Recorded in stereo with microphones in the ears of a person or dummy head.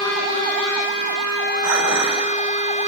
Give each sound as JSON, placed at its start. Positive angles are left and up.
{"t": 1.6, "sound": "dishes clattering", "side_deg": -55, "distance_m": 6.5}